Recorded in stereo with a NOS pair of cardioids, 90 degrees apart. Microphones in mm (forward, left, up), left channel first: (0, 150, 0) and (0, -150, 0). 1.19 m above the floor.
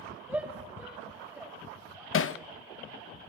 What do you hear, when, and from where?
0.3 s a shout: 5° right, 8 m
2.1 s hammering: 45° left, 1.3 m